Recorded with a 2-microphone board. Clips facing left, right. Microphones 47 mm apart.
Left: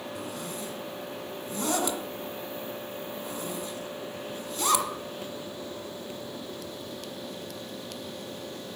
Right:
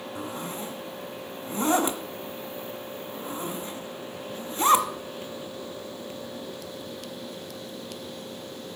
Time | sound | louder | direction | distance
0.1 | a zipper | right 5 dB | 25° right (ahead or behind) | 1.4 m